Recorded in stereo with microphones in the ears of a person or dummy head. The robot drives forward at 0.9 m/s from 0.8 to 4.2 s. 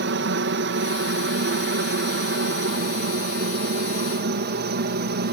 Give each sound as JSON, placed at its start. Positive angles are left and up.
{"t": 0.0, "sound": "a helicopter", "side_deg": -55}